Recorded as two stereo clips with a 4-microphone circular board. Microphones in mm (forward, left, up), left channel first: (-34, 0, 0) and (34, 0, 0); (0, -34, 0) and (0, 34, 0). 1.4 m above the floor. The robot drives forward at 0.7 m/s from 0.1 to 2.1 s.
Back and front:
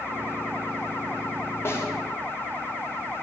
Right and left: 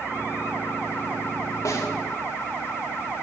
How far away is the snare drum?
About 1.8 m.